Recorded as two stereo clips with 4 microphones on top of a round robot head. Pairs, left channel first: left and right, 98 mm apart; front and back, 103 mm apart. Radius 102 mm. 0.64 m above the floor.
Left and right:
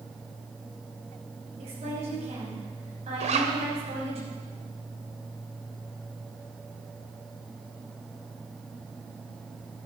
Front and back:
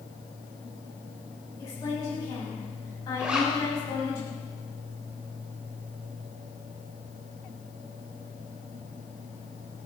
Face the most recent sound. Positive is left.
turn(degrees=-100)